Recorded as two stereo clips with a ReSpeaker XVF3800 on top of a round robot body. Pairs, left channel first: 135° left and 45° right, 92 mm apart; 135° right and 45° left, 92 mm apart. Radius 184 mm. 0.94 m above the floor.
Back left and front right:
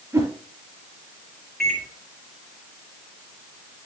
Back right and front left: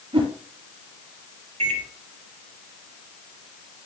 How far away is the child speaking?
I don't hear a child speaking.